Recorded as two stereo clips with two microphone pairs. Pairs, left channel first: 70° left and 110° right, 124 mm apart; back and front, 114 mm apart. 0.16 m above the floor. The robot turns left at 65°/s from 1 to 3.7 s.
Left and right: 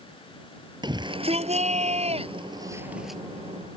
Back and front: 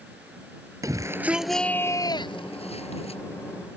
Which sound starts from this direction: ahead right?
A shout, at 0.8 s.